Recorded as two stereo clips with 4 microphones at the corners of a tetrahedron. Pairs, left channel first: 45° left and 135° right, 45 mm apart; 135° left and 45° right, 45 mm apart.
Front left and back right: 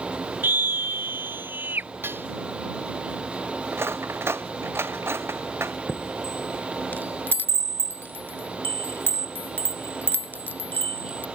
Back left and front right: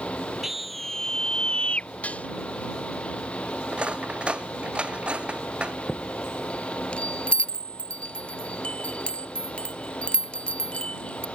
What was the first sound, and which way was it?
A scream, 130° right.